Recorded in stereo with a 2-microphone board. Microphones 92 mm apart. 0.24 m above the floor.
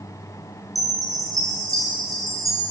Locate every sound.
0.8 s a chime: 40° right (ahead or behind), 4 m